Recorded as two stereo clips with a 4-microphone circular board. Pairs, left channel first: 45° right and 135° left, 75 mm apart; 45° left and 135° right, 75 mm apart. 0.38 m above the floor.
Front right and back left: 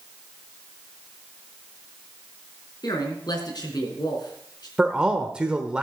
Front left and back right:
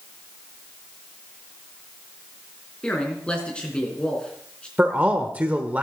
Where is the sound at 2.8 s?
30° right, 3.5 m.